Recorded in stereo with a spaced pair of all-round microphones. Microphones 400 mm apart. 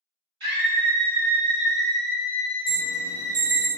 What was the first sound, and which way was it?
A scream, 65° right (ahead or behind).